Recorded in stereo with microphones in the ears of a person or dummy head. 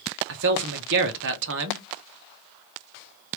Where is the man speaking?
65° right (ahead or behind), 0.7 m.